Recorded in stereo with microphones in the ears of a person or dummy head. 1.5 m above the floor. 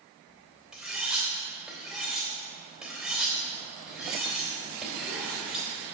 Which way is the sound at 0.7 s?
5° right (ahead or behind).